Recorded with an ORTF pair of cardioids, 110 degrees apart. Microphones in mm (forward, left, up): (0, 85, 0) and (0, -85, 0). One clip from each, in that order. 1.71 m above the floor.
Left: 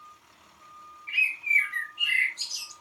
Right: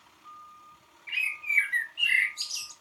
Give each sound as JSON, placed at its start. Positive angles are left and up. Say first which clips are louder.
{"t": 1.1, "sound": "a bird", "louder": "left 5 dB", "azimuth_deg": -30, "distance_m": 1.4}